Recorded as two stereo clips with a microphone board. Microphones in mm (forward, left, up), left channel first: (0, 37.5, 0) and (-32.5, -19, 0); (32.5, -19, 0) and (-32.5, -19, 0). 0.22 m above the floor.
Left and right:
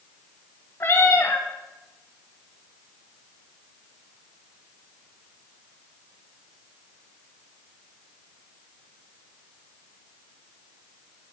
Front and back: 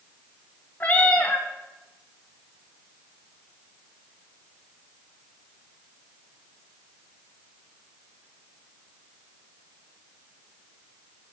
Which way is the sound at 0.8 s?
50° left.